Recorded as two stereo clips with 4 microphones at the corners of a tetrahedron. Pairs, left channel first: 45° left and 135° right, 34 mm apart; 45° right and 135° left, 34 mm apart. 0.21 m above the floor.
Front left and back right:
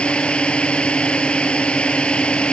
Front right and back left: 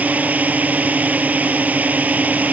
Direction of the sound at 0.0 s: 100° left.